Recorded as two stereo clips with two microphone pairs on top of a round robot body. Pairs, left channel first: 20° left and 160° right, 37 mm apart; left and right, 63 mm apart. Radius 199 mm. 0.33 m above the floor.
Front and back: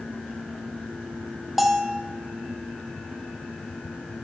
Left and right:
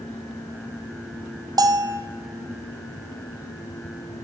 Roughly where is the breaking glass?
No breaking glass in this recording.